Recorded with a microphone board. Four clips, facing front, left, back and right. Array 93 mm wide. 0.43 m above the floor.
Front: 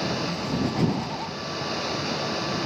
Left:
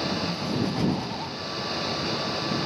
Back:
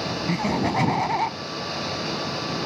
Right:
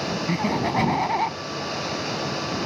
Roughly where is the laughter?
Behind right.